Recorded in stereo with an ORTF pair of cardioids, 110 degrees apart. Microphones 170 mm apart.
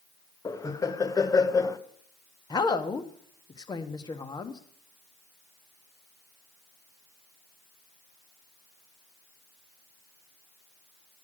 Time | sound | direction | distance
0.5 | laughter | 20° left | 0.9 m
2.5 | a woman speaking | 25° left | 1.2 m